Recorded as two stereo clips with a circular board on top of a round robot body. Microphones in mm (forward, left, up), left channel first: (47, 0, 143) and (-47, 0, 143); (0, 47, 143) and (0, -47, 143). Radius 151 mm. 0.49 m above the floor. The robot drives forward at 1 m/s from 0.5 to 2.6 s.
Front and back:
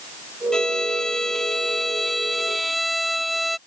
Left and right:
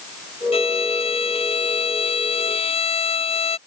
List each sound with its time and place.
0.5 s a violin: 80° left; by 3.6 s 90° left